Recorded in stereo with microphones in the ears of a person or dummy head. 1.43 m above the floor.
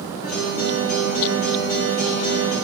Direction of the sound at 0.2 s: 45° left (ahead or behind).